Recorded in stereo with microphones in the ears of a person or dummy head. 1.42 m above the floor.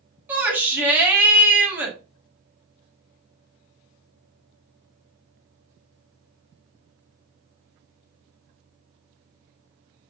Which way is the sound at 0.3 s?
10° right (ahead or behind).